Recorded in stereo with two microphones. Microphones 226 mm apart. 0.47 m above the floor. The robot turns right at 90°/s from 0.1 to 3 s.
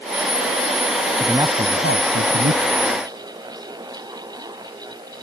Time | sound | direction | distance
1.2 | a man speaking | straight behind | ?